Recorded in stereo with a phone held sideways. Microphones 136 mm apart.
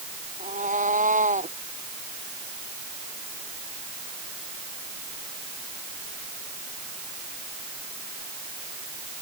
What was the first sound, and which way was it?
A cat meowing, 70° right (ahead or behind).